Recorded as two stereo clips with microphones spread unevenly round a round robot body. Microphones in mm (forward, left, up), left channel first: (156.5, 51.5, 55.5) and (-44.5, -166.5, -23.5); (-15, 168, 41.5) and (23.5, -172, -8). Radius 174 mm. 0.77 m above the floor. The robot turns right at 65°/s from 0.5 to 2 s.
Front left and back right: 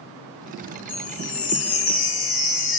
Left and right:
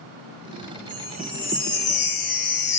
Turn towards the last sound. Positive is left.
turn(degrees=55)